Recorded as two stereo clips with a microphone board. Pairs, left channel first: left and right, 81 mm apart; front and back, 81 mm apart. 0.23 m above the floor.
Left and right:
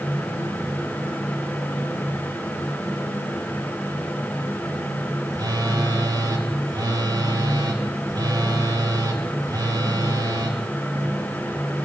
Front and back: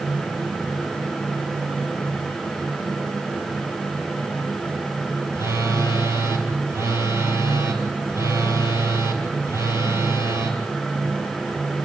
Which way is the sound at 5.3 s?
125° right.